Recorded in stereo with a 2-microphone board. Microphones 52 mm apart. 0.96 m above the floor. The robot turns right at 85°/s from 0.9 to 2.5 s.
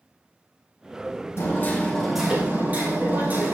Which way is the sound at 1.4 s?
120° left.